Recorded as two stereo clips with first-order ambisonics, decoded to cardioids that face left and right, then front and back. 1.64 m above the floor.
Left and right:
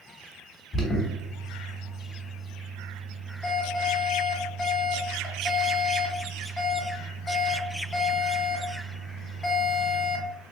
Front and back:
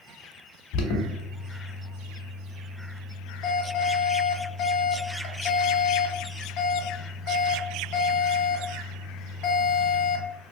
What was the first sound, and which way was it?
An alarm, 15° left.